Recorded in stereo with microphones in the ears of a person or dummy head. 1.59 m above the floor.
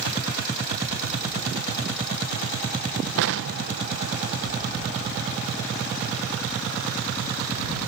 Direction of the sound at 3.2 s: 65° right (ahead or behind).